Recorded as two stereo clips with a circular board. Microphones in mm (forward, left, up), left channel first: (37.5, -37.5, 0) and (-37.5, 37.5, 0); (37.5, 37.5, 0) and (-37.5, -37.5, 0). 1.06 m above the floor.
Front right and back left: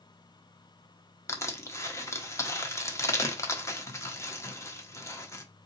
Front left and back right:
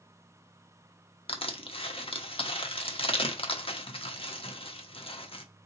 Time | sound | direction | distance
1.3 | crushing | 15° left | 1.0 m